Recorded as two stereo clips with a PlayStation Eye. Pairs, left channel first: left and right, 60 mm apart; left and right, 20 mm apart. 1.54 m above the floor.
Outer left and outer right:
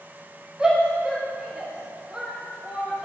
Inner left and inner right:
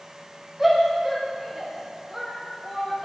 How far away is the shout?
About 3 m.